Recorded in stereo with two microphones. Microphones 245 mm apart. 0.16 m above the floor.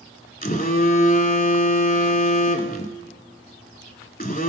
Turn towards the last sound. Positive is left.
turn(degrees=35)  # may be behind; listen again after turning